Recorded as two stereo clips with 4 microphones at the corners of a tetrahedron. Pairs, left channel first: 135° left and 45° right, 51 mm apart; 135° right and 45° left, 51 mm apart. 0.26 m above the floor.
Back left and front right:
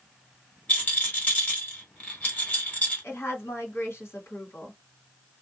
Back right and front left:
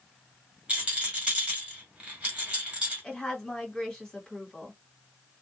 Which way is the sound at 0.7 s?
100° left.